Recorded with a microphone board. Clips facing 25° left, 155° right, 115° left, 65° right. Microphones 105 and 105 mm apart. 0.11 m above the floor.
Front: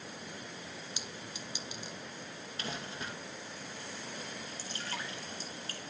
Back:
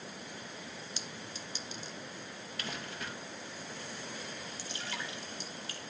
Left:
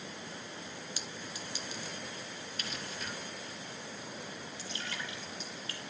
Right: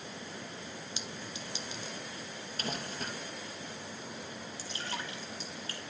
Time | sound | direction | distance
1.0 | a clink | 30° right | 0.7 m
2.6 | crumpling | 35° right | 2 m
4.6 | dripping | 20° right | 3 m